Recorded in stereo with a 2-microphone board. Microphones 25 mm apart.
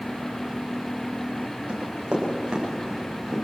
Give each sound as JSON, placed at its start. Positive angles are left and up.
{"t": 1.7, "sound": "running footsteps", "side_deg": -45, "distance_m": 10.0}